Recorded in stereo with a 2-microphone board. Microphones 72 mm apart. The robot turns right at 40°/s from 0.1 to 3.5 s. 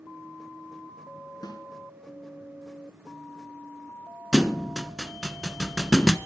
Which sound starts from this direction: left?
A snare drum, at 1.4 s.